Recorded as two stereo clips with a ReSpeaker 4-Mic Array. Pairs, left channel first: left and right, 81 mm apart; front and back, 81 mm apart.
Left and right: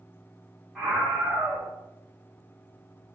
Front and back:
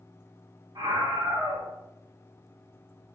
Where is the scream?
175° left, 1.6 m.